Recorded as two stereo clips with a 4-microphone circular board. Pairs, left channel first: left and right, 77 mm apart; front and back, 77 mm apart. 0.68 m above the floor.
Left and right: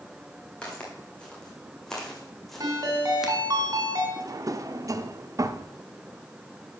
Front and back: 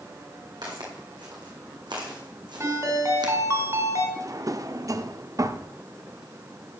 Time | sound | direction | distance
0.6 | footsteps | 165° left | 3 m
2.6 | a ringtone | 130° right | 2.5 m
4.2 | a drawer | 135° right | 0.6 m